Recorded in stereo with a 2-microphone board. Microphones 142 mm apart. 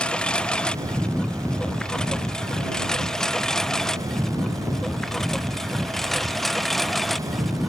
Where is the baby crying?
No baby crying in this recording.